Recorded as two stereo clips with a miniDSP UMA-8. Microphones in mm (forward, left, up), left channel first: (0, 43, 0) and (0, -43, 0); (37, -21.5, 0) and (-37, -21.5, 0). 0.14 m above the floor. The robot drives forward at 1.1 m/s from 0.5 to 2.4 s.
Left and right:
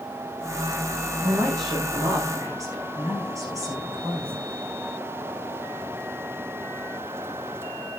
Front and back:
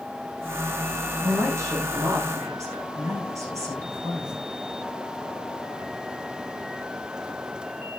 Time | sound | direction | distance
1.2 | a woman speaking | 130° right | 7 m